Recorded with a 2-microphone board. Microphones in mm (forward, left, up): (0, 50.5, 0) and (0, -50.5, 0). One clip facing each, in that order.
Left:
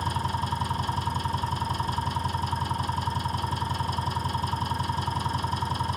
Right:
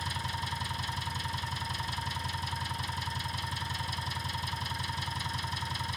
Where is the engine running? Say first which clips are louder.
Left 8 dB; 40° left (ahead or behind), 2 m.